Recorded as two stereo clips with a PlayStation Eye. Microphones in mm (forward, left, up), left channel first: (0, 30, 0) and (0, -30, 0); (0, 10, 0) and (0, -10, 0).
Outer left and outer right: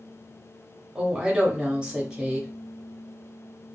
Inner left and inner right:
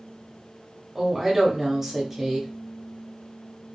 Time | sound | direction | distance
0.9 | a woman speaking | 15° right (ahead or behind) | 0.7 m